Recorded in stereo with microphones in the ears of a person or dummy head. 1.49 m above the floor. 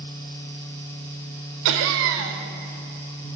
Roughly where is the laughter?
Right.